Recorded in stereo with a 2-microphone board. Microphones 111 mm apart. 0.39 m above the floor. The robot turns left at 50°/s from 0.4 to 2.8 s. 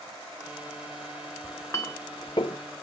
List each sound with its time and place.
1.4 s a clink: 15° left (ahead or behind), 0.6 m; by 2.6 s 50° left (ahead or behind), 0.6 m